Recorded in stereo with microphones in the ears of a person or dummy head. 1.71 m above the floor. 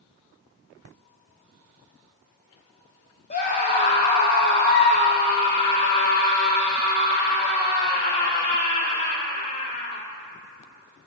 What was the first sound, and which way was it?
A scream, 45° left (ahead or behind).